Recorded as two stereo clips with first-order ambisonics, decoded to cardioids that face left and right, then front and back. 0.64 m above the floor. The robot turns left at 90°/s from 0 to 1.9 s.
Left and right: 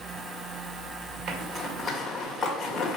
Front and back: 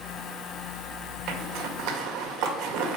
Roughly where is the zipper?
Behind right.